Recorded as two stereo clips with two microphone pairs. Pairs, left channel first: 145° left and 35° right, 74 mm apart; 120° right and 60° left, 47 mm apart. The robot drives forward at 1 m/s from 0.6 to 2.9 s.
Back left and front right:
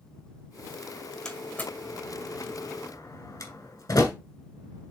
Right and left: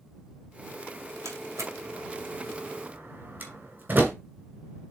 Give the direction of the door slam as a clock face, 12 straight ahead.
10 o'clock.